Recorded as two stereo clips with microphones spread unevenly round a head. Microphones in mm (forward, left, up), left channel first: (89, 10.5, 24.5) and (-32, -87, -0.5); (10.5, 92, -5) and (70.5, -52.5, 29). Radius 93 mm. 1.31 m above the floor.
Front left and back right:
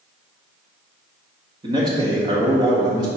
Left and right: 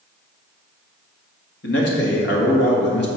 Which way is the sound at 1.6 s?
150° left.